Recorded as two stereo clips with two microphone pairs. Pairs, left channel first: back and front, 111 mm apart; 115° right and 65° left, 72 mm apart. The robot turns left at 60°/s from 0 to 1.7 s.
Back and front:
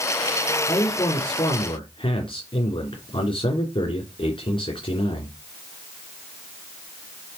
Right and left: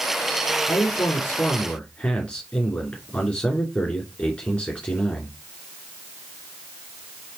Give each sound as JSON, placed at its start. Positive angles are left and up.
{"t": 0.7, "sound": "a man speaking", "azimuth_deg": -125, "distance_m": 2.5}